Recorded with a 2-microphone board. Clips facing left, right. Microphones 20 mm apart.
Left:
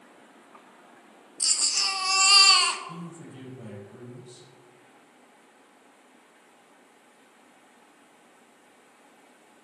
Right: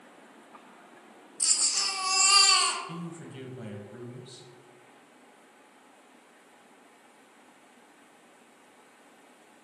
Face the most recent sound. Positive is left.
turn(degrees=-30)  # may be behind; listen again after turning